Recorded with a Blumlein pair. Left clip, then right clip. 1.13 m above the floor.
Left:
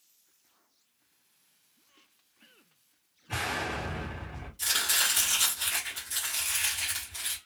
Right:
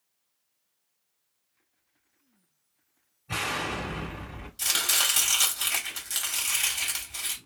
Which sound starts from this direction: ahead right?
Chopping, at 4.6 s.